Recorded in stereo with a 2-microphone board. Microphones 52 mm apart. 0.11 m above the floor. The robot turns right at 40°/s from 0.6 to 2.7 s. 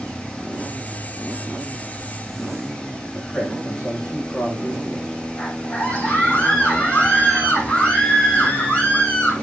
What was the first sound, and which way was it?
A man speaking, 15° left (ahead or behind).